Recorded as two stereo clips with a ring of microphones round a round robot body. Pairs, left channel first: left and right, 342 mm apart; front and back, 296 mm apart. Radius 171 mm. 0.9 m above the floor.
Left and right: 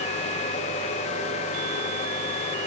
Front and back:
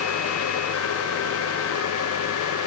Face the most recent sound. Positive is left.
No sound to turn to.